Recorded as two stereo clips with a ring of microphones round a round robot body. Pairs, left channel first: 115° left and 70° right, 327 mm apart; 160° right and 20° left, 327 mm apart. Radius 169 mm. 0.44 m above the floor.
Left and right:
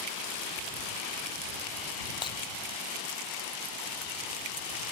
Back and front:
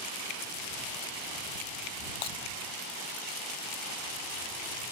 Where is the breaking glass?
170° right.